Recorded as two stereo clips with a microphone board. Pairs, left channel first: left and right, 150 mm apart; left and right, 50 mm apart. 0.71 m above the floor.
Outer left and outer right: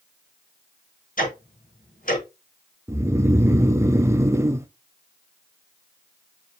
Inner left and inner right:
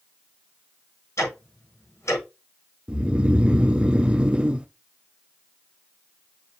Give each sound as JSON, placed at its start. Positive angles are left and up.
{"t": 1.2, "sound": "ticking", "side_deg": 65, "distance_m": 5.5}
{"t": 2.9, "sound": "snoring", "side_deg": -20, "distance_m": 0.6}